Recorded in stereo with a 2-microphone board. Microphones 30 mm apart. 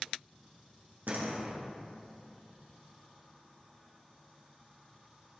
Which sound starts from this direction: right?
A door slam, at 1.1 s.